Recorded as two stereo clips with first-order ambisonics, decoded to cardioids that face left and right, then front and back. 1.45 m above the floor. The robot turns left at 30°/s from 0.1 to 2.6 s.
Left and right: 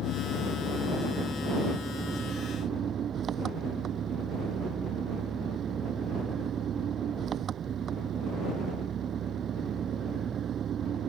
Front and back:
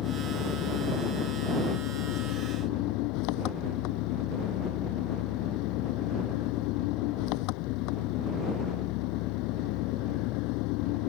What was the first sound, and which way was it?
An engine running, 45° left.